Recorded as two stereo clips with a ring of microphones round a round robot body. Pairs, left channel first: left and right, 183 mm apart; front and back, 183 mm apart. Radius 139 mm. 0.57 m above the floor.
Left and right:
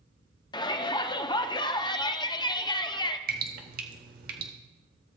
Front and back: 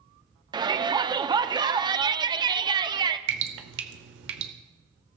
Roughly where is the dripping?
Behind right.